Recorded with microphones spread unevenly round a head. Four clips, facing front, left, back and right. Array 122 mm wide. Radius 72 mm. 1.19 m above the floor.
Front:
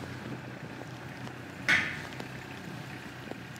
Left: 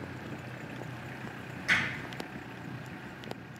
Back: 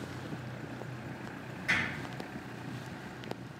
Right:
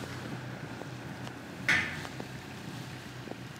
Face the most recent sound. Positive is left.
turn(degrees=-25)